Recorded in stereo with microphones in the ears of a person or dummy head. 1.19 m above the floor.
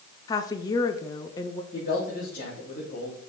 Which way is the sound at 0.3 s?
20° left (ahead or behind).